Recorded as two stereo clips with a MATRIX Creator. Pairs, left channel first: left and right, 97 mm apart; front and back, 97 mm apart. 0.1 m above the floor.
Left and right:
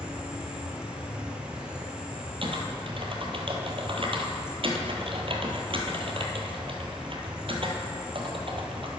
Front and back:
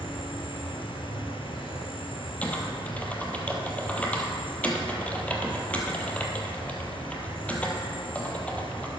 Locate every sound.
0.0 s an insect: 10° right, 1.4 m
2.4 s typing on a keyboard: 75° right, 1.1 m